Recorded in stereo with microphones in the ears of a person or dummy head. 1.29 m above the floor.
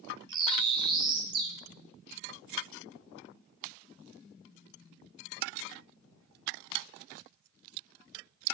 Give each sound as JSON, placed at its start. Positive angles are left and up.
{"t": 0.3, "sound": "a bird", "side_deg": -25, "distance_m": 0.5}